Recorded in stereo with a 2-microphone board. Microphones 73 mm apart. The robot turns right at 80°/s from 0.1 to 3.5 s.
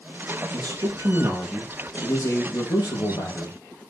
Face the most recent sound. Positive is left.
turn(degrees=150)